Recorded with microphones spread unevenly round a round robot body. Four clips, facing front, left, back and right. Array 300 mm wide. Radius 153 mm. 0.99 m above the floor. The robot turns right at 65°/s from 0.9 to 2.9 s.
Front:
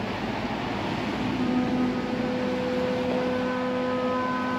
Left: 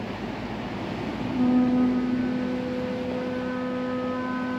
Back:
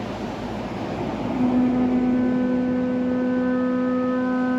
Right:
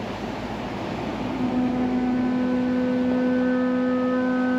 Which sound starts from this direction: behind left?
A flute, at 1.4 s.